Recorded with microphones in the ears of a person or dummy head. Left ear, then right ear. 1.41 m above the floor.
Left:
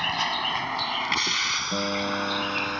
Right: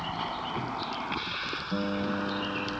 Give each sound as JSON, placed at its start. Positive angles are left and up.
{"t": 0.0, "sound": "a vehicle", "side_deg": 80}
{"t": 1.7, "sound": "a guitar", "side_deg": 30}